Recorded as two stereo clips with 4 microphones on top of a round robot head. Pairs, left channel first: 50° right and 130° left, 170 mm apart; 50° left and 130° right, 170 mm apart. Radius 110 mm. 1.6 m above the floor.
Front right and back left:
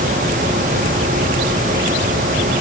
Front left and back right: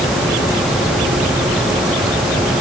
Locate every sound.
Only background noise.